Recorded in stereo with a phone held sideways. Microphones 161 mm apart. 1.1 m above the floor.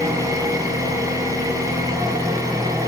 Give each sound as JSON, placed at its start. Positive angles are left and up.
{"t": 0.0, "sound": "an engine running", "side_deg": -20, "distance_m": 6.5}